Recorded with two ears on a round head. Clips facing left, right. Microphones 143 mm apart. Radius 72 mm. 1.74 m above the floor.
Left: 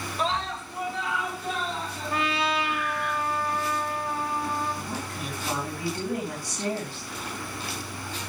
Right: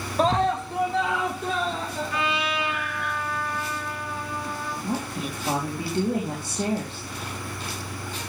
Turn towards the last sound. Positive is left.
turn(degrees=-25)  # may be behind; listen again after turning